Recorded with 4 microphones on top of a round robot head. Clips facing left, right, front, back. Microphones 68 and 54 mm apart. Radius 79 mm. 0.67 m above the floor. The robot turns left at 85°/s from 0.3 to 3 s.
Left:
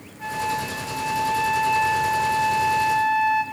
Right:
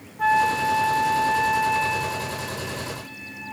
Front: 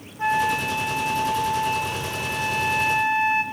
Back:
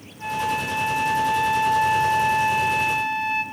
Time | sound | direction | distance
0.2 | a flute | 60° right | 1.4 m